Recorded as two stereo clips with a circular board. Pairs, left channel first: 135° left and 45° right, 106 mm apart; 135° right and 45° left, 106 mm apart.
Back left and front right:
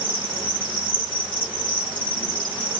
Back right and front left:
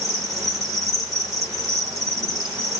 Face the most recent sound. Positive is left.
turn(degrees=170)